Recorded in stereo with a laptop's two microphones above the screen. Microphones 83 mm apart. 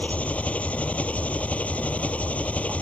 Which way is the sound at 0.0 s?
15° left (ahead or behind).